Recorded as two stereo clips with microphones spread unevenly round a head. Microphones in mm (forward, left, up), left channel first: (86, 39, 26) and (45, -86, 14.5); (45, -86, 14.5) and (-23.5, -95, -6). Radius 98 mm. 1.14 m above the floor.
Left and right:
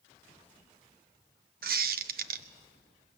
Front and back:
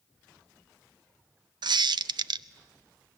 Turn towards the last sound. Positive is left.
turn(degrees=-150)